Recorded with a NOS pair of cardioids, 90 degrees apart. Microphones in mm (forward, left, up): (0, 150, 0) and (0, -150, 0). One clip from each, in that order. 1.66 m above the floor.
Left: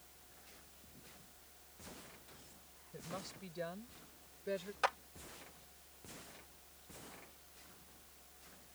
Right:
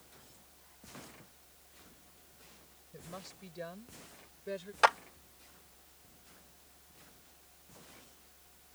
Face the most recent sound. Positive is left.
turn(degrees=-65)